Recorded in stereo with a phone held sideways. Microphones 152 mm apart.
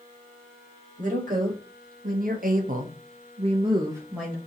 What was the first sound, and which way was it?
A woman speaking, 60° right (ahead or behind).